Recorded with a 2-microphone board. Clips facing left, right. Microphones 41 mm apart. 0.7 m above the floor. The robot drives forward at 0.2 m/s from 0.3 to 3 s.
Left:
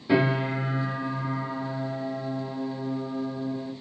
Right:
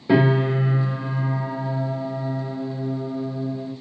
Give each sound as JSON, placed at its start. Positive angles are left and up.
{"t": 0.1, "sound": "a piano", "side_deg": -20, "distance_m": 1.8}